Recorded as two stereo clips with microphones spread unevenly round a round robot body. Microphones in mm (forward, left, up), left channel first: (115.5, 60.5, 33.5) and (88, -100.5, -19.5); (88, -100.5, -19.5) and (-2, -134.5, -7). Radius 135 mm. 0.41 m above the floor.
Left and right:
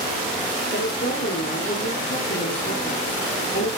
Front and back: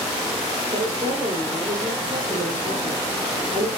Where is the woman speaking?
140° left, 7.5 m.